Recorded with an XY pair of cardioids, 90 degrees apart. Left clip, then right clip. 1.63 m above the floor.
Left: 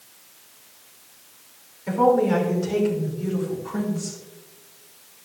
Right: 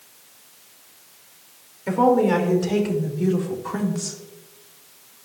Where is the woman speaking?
45° right, 3 m; by 4.2 s 75° right, 2 m.